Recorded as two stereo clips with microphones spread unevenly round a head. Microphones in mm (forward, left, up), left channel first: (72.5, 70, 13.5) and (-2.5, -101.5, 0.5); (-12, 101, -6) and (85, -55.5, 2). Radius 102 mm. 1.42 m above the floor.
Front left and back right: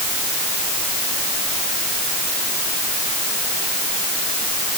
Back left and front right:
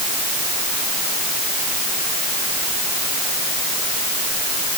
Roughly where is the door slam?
I don't hear a door slam.